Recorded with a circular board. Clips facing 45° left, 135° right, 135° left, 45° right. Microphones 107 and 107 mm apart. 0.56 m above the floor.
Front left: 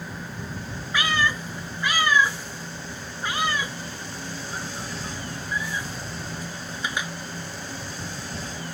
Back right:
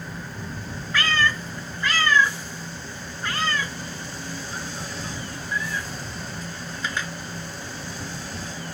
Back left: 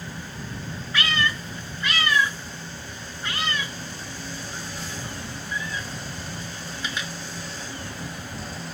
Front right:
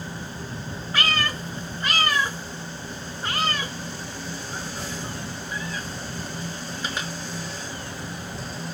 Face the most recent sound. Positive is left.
turn(degrees=-25)